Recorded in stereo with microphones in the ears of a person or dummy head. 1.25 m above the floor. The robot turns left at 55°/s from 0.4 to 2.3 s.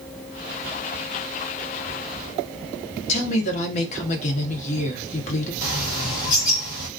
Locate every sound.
3.1 s a woman speaking: 40° left (ahead or behind), 0.9 m
5.6 s a bird: 85° left, 0.9 m